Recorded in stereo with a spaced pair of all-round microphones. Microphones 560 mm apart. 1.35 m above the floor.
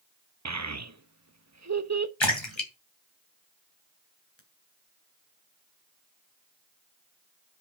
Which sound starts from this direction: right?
A child speaking, at 0.5 s.